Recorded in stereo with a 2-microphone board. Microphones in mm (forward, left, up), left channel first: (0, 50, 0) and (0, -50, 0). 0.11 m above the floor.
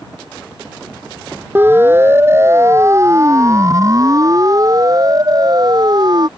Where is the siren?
20° right (ahead or behind); by 6.3 s 45° right (ahead or behind).